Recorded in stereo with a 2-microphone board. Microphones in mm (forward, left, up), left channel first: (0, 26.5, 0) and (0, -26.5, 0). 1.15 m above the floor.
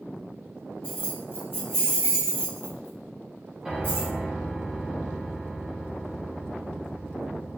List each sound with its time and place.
0.8 s keys jangling: 35° left (ahead or behind), 1.6 m
3.6 s a piano: 5° right (ahead or behind), 0.5 m